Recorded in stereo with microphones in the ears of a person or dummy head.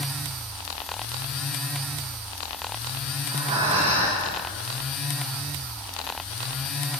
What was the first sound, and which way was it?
Breathing, 35° right (ahead or behind).